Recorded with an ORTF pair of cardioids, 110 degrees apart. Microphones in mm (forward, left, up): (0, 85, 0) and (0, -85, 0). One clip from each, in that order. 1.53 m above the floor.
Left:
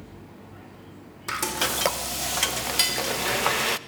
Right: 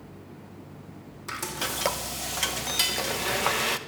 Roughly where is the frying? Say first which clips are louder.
Left 5 dB; ahead left.